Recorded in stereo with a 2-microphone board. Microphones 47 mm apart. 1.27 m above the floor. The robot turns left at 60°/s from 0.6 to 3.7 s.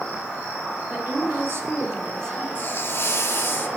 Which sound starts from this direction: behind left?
A hiss, at 2.5 s.